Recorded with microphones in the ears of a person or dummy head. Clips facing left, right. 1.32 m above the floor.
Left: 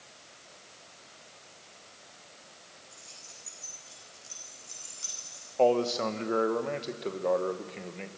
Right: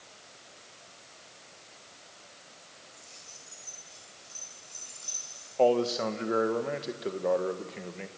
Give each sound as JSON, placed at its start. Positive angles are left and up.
{"t": 2.9, "sound": "keys jangling", "side_deg": 50, "distance_m": 10.0}
{"t": 5.6, "sound": "a man speaking", "side_deg": -5, "distance_m": 1.2}